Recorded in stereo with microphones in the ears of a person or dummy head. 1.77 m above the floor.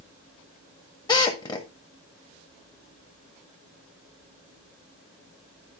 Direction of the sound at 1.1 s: 20° left (ahead or behind).